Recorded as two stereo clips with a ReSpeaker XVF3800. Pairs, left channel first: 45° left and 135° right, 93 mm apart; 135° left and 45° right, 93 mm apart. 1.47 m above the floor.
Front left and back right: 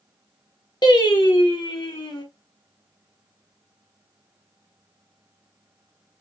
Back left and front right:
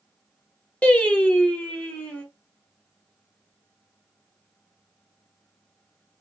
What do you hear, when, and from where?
0.8 s singing: 65° left, 0.8 m